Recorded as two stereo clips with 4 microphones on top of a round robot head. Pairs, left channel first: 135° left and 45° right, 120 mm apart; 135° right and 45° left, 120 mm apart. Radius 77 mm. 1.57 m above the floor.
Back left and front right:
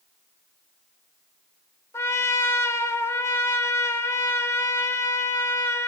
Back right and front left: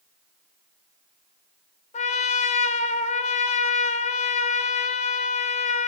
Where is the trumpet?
155° right, 0.6 m.